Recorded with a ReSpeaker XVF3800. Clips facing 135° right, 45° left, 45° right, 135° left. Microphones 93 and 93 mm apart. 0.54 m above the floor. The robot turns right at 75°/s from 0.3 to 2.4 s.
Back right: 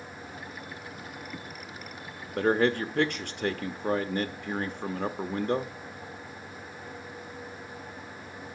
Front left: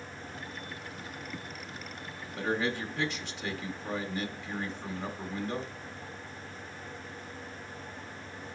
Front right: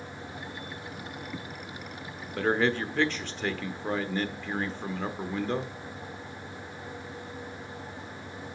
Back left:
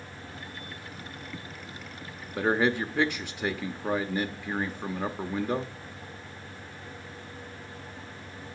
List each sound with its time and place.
2.4 s a man speaking: 150° right, 1.1 m